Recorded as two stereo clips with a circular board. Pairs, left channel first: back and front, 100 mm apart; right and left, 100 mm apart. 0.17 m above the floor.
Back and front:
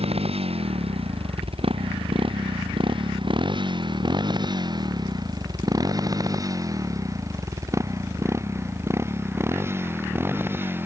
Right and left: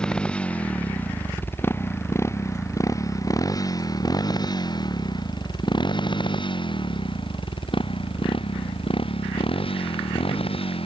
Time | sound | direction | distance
0.0 | a motorcycle | 10° right | ?